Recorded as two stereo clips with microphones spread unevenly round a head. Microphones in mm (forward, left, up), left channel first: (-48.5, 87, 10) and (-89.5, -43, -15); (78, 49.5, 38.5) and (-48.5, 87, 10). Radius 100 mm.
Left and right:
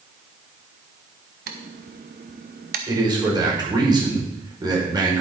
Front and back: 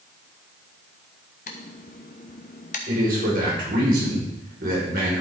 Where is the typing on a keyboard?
65° right, 0.8 m.